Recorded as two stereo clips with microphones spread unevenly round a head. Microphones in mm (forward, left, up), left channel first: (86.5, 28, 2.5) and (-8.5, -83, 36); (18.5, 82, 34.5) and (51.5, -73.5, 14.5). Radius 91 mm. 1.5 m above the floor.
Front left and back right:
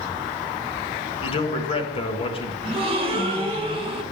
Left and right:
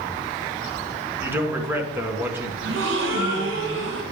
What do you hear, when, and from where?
1.2 s a man speaking: straight ahead, 1.6 m
2.6 s a gasp: 85° right, 1.7 m